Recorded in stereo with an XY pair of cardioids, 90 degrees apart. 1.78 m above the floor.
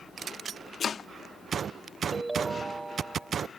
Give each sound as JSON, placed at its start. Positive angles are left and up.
{"t": 0.8, "sound": "chopping", "azimuth_deg": 55}
{"t": 2.1, "sound": "a ringtone", "azimuth_deg": -15}